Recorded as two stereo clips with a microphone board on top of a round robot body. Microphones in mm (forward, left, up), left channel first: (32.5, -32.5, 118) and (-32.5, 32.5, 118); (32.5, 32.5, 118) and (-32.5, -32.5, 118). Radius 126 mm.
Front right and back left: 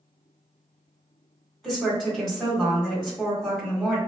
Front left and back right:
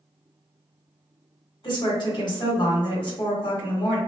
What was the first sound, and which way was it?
A woman speaking, 40° left.